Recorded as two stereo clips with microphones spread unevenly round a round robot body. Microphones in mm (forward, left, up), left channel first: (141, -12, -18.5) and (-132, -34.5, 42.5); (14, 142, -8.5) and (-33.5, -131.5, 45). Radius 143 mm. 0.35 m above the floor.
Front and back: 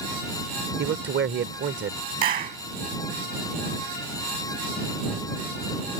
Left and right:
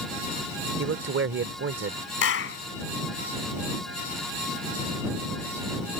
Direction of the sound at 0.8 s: 135° right.